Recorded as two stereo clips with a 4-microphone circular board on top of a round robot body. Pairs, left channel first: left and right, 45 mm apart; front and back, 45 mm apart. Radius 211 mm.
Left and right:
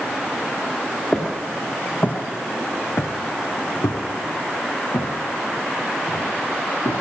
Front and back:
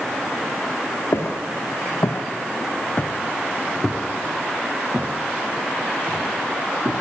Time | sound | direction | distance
1.1 | footsteps | 15° left | 2.5 m